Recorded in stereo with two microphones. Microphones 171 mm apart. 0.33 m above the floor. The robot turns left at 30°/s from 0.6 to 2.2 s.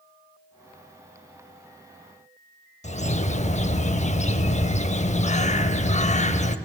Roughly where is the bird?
Left.